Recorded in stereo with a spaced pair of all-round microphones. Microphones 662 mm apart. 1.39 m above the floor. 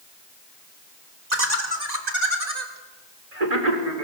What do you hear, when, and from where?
1.3 s laughter: 85° right, 5 m; by 4.0 s 60° right (ahead or behind), 5.5 m